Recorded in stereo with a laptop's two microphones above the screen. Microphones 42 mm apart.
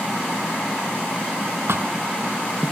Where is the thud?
70° right (ahead or behind).